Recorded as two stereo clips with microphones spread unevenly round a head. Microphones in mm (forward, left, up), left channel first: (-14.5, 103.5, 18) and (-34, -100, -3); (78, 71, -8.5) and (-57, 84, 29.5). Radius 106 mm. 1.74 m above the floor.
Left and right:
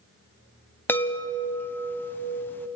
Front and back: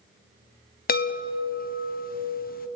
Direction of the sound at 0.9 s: 5° left.